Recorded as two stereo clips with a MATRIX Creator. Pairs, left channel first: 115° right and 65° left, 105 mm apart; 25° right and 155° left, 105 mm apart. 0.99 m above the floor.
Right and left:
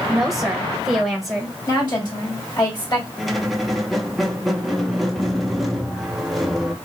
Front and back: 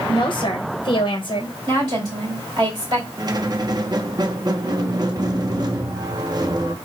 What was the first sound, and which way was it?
A woman speaking, 20° right.